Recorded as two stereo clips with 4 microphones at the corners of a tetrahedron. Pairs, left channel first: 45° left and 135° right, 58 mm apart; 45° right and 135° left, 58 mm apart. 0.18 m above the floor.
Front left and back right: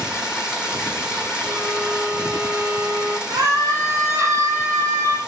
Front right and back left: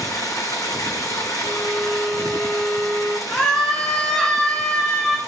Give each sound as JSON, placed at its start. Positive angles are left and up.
{"t": 0.0, "sound": "running water", "azimuth_deg": -60, "distance_m": 1.5}
{"t": 1.4, "sound": "a violin", "azimuth_deg": -115, "distance_m": 1.5}
{"t": 3.3, "sound": "a scream", "azimuth_deg": -115, "distance_m": 1.9}